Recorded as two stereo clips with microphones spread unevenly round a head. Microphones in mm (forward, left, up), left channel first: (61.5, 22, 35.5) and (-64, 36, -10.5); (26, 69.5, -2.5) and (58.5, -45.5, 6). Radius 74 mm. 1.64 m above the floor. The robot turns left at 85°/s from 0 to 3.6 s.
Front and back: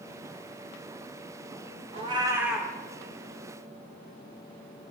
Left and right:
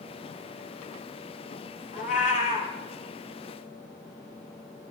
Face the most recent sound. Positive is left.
turn(degrees=-15)